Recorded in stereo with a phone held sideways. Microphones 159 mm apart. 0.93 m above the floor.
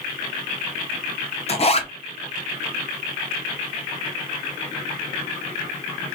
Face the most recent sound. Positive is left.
turn(degrees=40)  # may be behind; listen again after turning